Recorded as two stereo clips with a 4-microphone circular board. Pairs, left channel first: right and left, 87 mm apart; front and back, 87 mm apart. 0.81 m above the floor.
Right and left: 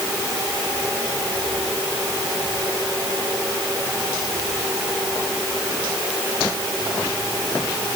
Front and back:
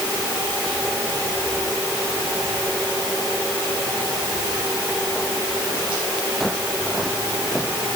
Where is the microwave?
I don't hear a microwave.